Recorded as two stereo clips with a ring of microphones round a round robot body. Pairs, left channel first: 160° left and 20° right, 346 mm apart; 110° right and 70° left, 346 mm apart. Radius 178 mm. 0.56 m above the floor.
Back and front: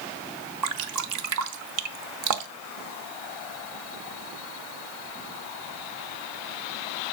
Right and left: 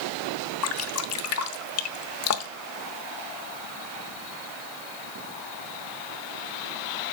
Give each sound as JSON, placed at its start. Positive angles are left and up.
{"t": 0.6, "sound": "dripping", "azimuth_deg": -65, "distance_m": 0.8}